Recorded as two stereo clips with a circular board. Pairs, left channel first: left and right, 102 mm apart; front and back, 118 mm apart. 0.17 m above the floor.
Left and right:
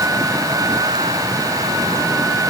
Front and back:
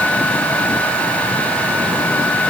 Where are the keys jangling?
I don't hear keys jangling.